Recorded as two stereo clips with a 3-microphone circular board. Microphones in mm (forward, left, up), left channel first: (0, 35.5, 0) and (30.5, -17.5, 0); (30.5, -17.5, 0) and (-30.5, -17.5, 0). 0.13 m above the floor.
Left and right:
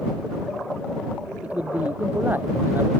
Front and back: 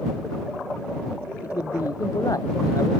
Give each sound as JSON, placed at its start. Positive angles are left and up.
{"t": 1.4, "sound": "a man speaking", "azimuth_deg": 5}